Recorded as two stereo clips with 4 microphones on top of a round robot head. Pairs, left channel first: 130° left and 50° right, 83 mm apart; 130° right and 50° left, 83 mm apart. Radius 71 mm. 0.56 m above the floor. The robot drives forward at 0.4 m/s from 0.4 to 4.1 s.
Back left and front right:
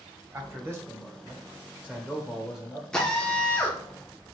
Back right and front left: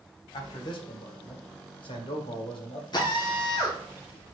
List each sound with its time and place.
0.3 s a man speaking: 105° right, 1.5 m; by 2.8 s 135° right, 2.0 m
2.9 s a drill: 150° right, 1.2 m; by 3.8 s 155° right, 1.5 m